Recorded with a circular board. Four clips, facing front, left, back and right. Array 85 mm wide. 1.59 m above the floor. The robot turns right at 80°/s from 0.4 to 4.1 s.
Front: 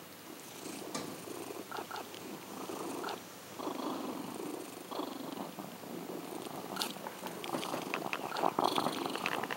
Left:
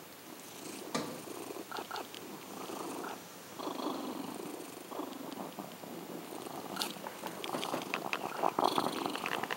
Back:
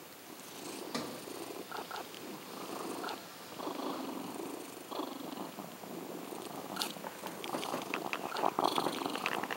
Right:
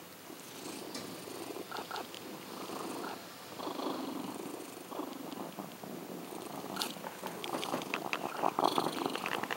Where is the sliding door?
110° left, 0.5 m; by 1.2 s 130° left, 0.5 m.